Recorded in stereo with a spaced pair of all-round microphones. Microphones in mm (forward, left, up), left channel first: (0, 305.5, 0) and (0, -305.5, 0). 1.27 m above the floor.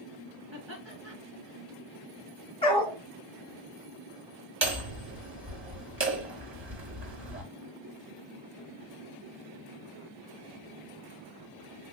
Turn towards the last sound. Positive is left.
turn(degrees=-20)  # may be behind; listen again after turning